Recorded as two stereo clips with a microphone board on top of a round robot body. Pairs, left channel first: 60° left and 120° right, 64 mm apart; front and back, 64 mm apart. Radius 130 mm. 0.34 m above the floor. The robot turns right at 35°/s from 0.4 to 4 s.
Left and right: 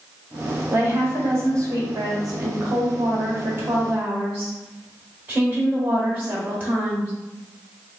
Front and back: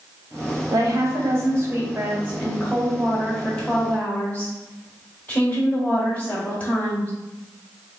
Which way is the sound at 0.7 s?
Straight behind.